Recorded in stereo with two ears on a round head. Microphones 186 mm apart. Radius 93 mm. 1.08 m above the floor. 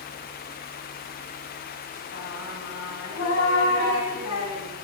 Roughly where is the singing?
Left.